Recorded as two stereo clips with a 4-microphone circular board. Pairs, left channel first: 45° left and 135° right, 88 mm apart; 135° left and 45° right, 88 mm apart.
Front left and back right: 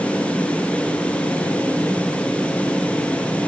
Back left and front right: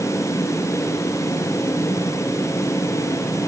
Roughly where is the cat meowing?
I don't hear a cat meowing.